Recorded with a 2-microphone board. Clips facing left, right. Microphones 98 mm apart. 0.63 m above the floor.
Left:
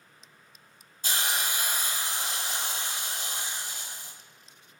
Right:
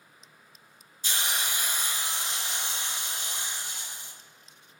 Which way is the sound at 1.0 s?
50° left (ahead or behind).